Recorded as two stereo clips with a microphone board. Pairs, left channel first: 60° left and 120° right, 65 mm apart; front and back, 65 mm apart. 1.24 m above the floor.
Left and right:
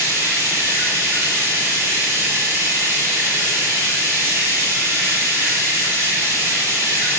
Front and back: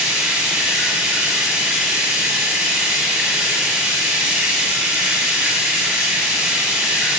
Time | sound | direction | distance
0.0 | running water | 120° right | 1.3 m